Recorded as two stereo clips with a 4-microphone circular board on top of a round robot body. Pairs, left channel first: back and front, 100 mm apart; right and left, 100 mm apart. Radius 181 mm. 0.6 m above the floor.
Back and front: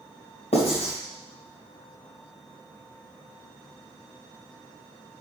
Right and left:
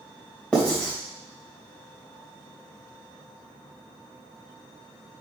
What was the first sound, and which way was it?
Writing, 170° right.